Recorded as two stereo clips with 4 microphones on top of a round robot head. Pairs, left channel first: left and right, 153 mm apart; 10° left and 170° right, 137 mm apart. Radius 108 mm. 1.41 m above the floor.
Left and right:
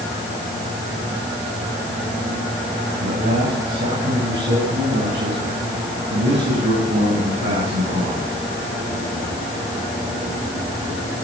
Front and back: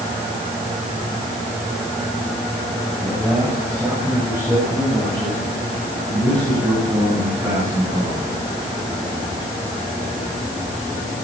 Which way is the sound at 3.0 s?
85° right.